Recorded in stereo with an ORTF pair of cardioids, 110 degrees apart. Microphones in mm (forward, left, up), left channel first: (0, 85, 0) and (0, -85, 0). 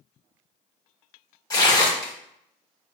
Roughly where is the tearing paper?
Ahead left.